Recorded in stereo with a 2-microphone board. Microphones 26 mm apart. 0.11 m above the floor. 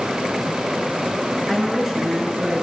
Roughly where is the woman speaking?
Centre.